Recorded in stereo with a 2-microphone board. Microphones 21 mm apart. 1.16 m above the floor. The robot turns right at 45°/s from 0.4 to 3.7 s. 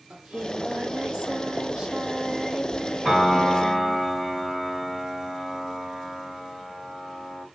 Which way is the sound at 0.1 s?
115° right.